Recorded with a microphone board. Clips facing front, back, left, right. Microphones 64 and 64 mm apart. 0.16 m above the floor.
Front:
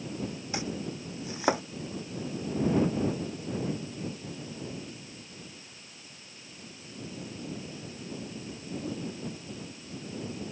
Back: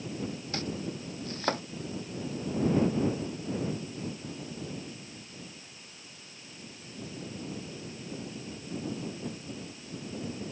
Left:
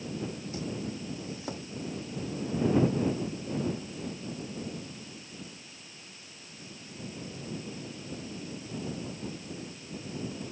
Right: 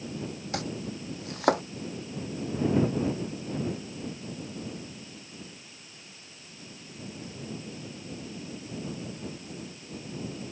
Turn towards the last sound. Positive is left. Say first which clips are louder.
# front 1 dB, right 4 dB
turn(degrees=-75)